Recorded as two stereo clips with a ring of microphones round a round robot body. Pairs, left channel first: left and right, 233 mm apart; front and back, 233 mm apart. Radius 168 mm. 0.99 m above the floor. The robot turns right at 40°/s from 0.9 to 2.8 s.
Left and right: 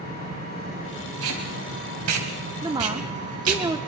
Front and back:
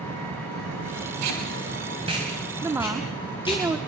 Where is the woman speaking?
125° right, 0.7 m; by 3.8 s 120° right, 0.7 m.